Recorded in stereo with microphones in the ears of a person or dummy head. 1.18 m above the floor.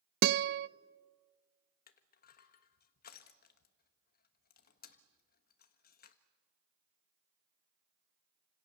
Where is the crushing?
45° left (ahead or behind), 1.2 m.